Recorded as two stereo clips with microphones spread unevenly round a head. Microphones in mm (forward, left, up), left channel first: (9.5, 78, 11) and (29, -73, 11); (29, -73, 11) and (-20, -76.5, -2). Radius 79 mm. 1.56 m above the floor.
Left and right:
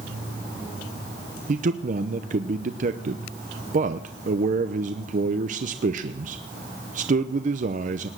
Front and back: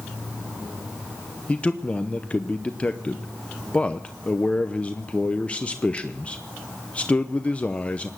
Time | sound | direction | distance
1.5 | a man speaking | 50° right | 0.7 m